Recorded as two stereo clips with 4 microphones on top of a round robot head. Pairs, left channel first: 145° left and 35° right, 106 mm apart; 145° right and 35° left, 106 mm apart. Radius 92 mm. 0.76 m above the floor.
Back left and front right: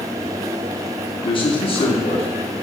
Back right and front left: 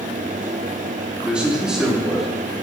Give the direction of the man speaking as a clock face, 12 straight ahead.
8 o'clock.